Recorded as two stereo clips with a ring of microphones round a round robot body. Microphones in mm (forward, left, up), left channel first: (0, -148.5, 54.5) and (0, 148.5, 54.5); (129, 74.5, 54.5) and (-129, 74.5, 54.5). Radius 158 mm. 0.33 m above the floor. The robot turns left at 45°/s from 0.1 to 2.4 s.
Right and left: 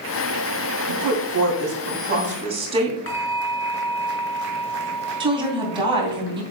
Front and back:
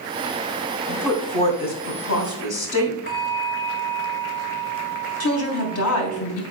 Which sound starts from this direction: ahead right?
A bell, at 3.1 s.